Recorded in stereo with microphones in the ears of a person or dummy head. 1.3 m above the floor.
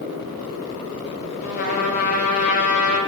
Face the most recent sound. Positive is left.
turn(degrees=50)  # may be behind; listen again after turning